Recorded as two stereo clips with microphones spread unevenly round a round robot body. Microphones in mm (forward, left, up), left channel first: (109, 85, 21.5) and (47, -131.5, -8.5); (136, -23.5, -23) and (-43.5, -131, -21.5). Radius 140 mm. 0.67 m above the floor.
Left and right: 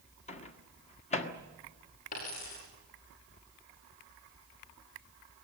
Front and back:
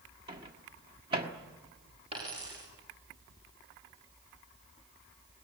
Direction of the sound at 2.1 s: 140° left.